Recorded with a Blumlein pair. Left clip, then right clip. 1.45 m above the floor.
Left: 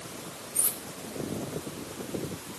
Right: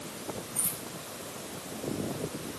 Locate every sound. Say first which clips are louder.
0.6 s cutlery clinking: left 3 dB; 20° left, 1.9 m